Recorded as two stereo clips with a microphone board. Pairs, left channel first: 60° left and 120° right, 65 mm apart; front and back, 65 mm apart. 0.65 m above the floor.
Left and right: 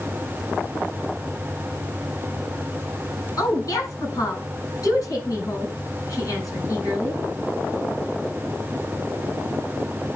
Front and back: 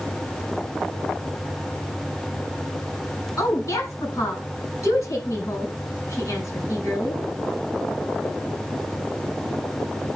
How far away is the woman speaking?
About 6 m.